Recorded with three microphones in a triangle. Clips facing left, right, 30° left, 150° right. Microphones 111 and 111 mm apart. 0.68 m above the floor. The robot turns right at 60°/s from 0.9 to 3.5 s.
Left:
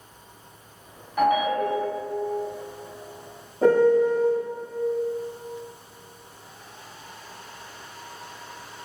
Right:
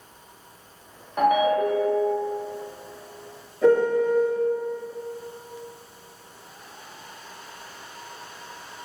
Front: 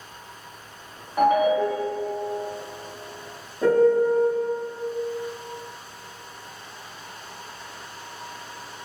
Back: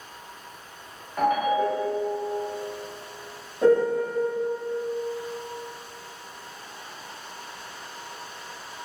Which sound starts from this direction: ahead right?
A ringtone, at 1.2 s.